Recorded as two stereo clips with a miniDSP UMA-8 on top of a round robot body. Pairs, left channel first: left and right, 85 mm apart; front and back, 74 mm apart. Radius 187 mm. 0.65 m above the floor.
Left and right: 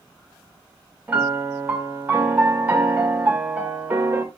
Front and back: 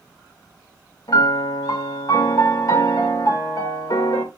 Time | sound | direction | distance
1.1 | a piano | 20° right | 2 m